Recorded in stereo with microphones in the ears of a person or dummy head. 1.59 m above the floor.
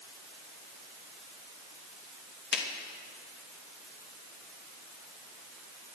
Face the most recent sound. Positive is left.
turn(degrees=60)  # may be behind; listen again after turning